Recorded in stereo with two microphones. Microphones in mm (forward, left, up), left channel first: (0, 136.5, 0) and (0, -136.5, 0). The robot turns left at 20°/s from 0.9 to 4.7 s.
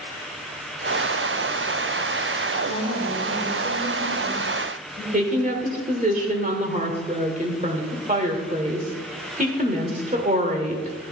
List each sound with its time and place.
2.6 s a woman speaking: 25° left, 6 m; by 5.0 s 15° right, 6 m
5.1 s a woman speaking: 30° right (ahead or behind), 1.8 m